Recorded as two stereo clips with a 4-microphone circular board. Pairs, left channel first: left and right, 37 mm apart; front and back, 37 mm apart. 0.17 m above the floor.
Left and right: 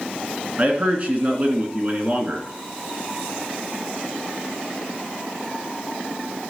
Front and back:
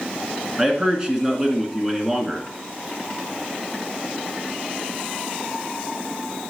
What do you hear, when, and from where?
0.6 s a man speaking: 115° right, 1.9 m